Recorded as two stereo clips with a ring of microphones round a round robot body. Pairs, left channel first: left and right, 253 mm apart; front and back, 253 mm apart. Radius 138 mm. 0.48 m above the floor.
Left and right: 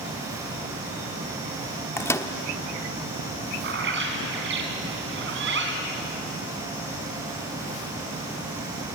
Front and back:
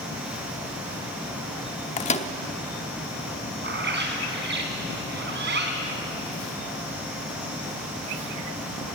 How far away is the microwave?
About 1.0 m.